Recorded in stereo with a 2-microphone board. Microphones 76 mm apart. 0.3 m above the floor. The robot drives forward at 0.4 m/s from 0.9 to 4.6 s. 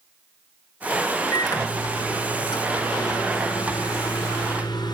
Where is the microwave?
60° left (ahead or behind), 3 m; by 5.0 s 70° left (ahead or behind), 3 m.